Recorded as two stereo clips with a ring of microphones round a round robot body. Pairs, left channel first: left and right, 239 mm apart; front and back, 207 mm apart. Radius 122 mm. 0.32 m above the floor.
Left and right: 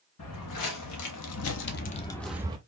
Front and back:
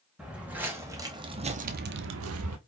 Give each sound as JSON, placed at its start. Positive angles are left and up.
{"t": 0.2, "sound": "footsteps", "azimuth_deg": 95, "distance_m": 1.5}